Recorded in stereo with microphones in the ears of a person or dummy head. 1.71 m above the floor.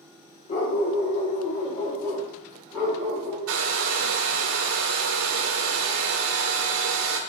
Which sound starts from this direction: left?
A dog barking, at 0.5 s.